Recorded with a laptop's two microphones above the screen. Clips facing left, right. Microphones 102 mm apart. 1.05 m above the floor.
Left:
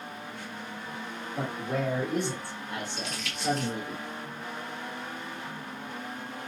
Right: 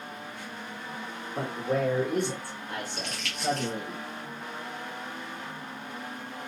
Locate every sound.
1.3 s a man speaking: 45° right (ahead or behind), 2 m; by 4.0 s 40° right (ahead or behind), 1.0 m
3.0 s crumpling: 65° right (ahead or behind), 1.4 m